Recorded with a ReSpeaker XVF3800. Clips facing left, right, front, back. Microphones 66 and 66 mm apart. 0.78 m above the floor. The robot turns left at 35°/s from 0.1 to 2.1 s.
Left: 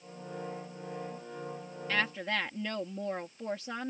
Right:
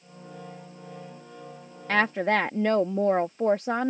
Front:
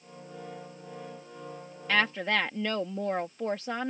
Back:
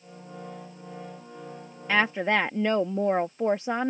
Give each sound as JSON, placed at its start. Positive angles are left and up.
{"t": 1.9, "sound": "a woman speaking", "azimuth_deg": -105}